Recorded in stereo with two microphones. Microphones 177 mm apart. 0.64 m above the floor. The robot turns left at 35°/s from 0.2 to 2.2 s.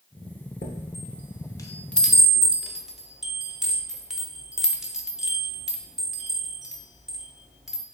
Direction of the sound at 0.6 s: 55° left (ahead or behind).